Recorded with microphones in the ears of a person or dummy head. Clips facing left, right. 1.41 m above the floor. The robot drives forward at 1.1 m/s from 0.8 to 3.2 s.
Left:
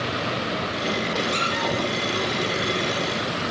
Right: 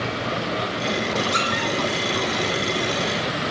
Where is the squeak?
10° right (ahead or behind), 2.5 m; by 1.7 s 15° right (ahead or behind), 2 m.